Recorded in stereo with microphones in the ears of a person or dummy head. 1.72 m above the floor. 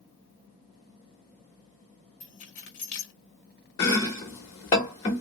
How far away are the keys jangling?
About 0.9 m.